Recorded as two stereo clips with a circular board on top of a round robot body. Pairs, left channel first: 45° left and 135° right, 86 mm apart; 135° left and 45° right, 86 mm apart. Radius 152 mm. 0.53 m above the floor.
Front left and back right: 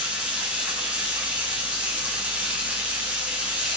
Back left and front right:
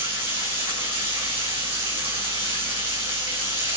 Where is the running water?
60° right, 4.5 m.